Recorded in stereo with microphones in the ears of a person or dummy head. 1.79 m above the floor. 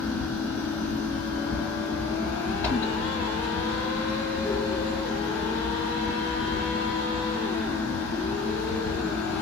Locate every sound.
0.0 s a fan: 15° left (ahead or behind), 1.5 m